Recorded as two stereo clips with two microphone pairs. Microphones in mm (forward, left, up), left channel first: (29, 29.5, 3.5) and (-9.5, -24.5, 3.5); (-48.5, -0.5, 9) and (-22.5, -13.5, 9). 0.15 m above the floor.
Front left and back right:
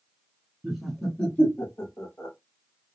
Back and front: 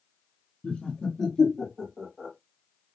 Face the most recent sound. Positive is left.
turn(degrees=45)